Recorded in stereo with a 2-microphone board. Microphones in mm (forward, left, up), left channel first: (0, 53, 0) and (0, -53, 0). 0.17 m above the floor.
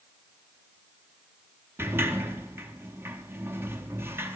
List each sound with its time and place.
1.8 s a sliding door: 20° right (ahead or behind), 0.6 m